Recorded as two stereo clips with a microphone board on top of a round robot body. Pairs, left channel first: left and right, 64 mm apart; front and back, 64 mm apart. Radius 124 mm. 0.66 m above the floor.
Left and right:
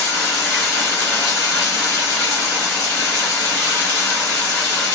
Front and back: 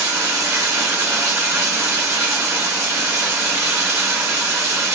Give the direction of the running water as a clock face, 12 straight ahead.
8 o'clock.